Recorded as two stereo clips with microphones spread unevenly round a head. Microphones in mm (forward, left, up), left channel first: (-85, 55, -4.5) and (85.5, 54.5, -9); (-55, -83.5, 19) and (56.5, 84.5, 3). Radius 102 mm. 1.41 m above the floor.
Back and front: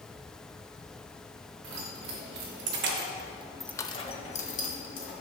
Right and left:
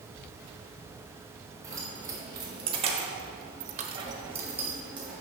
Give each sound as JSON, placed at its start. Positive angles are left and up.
{"t": 1.6, "sound": "keys jangling", "azimuth_deg": -20, "distance_m": 2.0}